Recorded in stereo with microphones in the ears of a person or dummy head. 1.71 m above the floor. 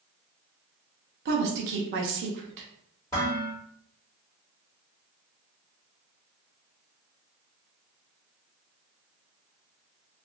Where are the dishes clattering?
20° left (ahead or behind), 1.7 m.